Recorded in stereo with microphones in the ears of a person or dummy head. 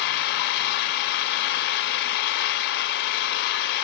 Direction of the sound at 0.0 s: 50° left (ahead or behind).